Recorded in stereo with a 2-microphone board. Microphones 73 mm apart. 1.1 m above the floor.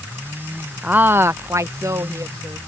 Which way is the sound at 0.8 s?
20° right (ahead or behind).